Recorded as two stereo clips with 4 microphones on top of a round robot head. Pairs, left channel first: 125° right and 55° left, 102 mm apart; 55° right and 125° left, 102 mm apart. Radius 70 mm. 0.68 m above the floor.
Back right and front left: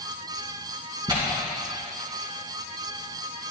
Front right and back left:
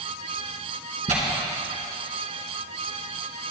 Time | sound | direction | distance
1.1 | tearing paper | 105° left | 2.5 m